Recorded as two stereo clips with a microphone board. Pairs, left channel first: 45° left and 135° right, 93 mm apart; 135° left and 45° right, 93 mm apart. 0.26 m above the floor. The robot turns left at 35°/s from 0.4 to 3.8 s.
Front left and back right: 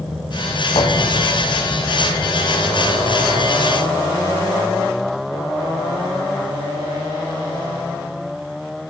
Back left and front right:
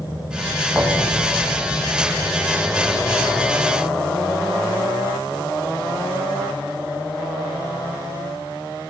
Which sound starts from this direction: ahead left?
A thud, at 0.8 s.